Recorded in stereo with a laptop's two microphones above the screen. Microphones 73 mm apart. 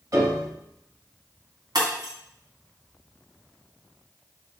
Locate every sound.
0.1 s a piano: 50° right (ahead or behind), 2 m
1.8 s breaking glass: 70° right (ahead or behind), 2 m